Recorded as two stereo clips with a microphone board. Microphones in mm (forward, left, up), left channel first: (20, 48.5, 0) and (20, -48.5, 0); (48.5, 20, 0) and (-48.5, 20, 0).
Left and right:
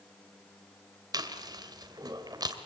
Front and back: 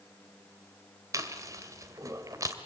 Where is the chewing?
130° right, 2 m.